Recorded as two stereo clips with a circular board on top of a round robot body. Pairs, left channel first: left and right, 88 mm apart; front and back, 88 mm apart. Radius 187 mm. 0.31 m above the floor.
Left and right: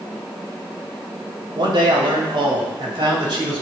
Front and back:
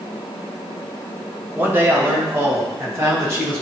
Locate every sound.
1.6 s a man speaking: 120° right, 2.5 m